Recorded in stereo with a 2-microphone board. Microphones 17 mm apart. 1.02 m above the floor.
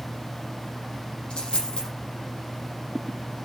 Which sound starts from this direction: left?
A dropped coin, at 1.3 s.